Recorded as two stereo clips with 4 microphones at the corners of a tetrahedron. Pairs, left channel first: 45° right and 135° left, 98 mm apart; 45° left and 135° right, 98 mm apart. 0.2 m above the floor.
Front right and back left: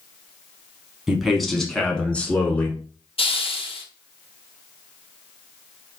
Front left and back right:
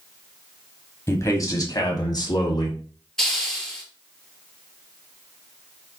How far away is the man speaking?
About 1.1 m.